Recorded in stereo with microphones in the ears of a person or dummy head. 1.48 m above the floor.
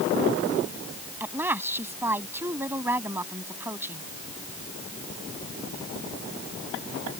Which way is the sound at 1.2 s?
20° right (ahead or behind).